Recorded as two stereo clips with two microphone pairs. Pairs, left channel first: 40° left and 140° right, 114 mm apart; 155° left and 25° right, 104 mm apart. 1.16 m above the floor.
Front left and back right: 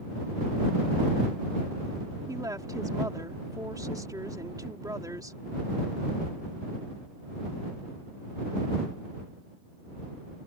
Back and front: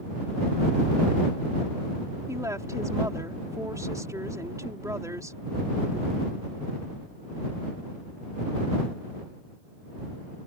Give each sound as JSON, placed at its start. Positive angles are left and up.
{"t": 2.3, "sound": "a woman speaking", "azimuth_deg": -85}